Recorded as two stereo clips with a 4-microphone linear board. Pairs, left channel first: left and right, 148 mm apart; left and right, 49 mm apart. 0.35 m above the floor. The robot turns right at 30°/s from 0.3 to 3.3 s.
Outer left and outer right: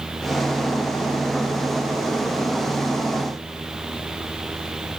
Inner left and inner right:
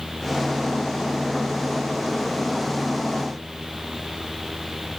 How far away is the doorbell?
No doorbell in this recording.